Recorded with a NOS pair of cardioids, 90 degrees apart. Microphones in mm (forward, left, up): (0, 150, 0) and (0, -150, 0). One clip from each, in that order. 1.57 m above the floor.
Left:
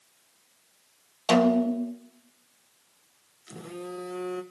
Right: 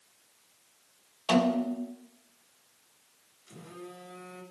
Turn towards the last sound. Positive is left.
turn(degrees=50)